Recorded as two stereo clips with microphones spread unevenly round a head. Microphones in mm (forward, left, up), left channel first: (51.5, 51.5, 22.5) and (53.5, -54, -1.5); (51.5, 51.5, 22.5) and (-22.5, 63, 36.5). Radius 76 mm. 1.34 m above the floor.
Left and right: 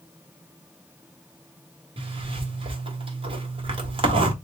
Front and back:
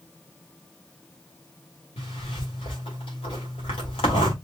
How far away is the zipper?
About 1.9 m.